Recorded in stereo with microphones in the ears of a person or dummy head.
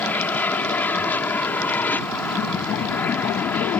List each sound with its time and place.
0.0 s an aircraft: 5° left (ahead or behind)